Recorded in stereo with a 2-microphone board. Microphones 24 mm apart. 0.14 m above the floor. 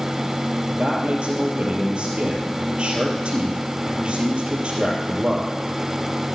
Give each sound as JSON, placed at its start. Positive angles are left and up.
{"t": 0.7, "sound": "a man speaking", "side_deg": -50, "distance_m": 3.0}